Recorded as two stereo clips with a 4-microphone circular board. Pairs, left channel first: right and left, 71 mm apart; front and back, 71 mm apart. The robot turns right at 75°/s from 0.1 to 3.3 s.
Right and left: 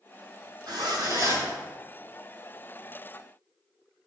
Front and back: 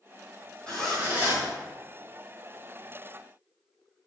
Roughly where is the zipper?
Left.